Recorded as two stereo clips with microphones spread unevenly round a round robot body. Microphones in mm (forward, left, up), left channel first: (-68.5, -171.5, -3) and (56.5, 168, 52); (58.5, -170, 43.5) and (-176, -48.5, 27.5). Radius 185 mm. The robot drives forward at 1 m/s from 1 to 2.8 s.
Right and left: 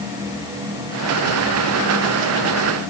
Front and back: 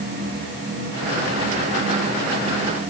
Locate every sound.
Only background noise.